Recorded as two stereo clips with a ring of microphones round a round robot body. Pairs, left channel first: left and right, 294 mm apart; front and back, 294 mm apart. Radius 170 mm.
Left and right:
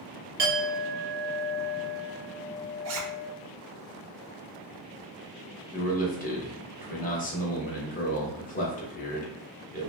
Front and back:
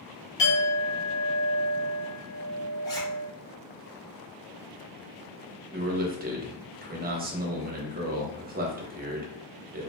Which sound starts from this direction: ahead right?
A clink, at 0.4 s.